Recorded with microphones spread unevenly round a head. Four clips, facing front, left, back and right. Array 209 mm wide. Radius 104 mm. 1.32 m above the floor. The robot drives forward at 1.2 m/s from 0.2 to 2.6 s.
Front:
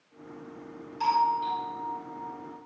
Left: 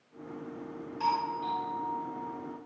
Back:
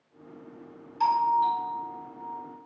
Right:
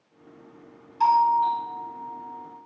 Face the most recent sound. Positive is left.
turn(degrees=-125)